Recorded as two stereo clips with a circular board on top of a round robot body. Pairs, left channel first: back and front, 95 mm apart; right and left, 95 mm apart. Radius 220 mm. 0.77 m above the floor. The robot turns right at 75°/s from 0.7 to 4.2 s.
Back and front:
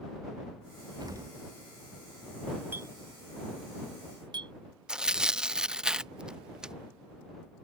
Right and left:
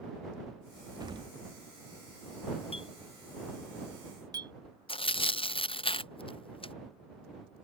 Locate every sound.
1.0 s an explosion: 40° left; by 1.4 s 70° left
2.7 s a clink: 70° right; by 4.5 s 40° left
4.9 s tearing paper: 80° right